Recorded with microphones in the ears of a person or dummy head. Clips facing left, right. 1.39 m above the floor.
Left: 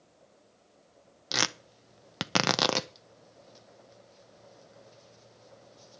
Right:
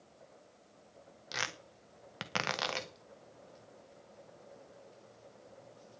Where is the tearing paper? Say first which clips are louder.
Left 9 dB; 65° left (ahead or behind), 0.7 m.